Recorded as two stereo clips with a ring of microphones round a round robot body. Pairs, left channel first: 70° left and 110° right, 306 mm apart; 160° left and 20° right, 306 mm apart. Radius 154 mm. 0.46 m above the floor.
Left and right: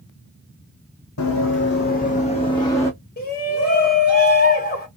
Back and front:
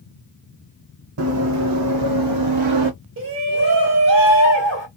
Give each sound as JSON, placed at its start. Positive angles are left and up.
{"t": 1.2, "sound": "running footsteps", "azimuth_deg": 25, "distance_m": 1.4}
{"t": 3.2, "sound": "a shout", "azimuth_deg": 15, "distance_m": 2.0}